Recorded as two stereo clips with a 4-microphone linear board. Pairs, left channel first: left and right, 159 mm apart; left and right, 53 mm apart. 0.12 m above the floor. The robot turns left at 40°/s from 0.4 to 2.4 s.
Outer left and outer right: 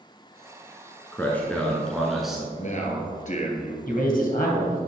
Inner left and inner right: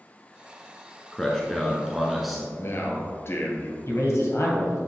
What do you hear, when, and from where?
1.1 s a man speaking: 10° left (ahead or behind), 1.1 m; by 2.5 s 5° right (ahead or behind), 1.1 m
2.6 s a man speaking: 50° left (ahead or behind), 1.6 m
3.9 s a man speaking: 60° left (ahead or behind), 2 m